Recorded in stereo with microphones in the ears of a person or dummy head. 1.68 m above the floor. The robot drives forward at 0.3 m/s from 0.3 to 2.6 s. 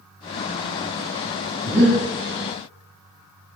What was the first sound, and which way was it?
Breathing, 10° right (ahead or behind).